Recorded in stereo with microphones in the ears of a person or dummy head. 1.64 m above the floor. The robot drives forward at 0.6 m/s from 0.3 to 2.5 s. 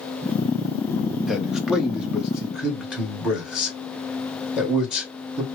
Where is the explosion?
I don't hear an explosion.